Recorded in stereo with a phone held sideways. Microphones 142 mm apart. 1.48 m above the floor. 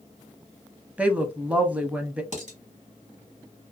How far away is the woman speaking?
About 0.7 m.